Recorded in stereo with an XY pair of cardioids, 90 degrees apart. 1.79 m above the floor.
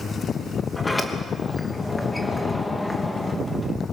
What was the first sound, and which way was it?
A sliding door, 15° left.